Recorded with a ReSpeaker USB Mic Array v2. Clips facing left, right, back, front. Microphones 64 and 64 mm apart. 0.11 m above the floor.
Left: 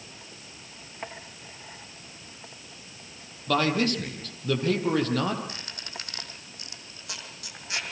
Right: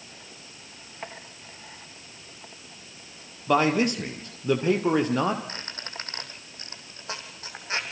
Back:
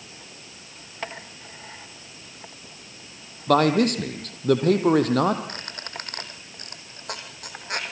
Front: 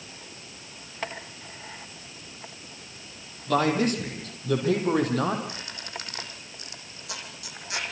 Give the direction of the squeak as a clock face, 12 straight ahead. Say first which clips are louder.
Right 2 dB, back 2 dB; 5 o'clock.